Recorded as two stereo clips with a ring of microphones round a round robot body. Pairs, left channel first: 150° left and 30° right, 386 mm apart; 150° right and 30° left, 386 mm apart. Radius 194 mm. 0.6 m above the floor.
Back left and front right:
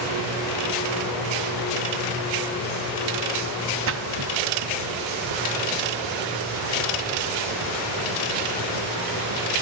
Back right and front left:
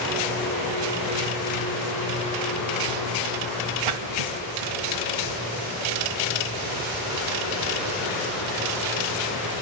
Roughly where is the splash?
Ahead left.